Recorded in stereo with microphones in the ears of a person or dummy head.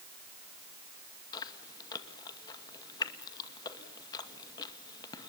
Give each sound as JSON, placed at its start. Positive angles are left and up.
{"t": 1.3, "sound": "chewing", "side_deg": 20, "distance_m": 2.0}